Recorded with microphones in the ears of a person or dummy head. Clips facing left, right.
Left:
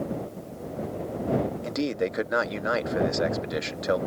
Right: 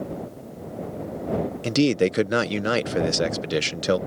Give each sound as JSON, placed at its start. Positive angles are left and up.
{"t": 1.6, "sound": "a man speaking", "side_deg": -40}